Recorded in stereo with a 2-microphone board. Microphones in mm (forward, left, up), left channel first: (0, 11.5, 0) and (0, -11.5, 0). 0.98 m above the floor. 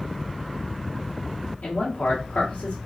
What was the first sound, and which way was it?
A man speaking, 75° left (ahead or behind).